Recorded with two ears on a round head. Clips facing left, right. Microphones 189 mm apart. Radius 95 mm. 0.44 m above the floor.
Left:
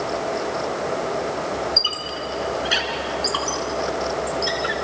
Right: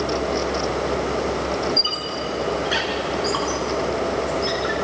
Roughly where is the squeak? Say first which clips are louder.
Right 3 dB; left.